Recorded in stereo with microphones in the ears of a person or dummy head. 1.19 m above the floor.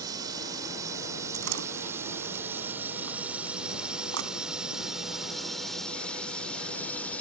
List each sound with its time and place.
0.0 s a drone: 20° right (ahead or behind); by 7.2 s 10° left (ahead or behind)
1.3 s a door slam: 90° right